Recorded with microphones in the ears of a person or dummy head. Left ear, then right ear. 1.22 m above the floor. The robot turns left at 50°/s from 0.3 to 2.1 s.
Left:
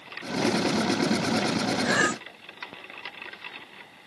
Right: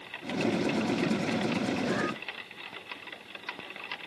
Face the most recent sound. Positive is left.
turn(degrees=75)  # may be behind; listen again after turning